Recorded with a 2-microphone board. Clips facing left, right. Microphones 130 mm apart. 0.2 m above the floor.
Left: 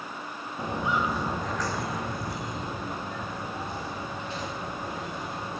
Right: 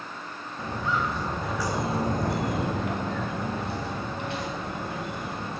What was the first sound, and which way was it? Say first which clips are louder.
Footsteps: left 1 dB; 20° left (ahead or behind).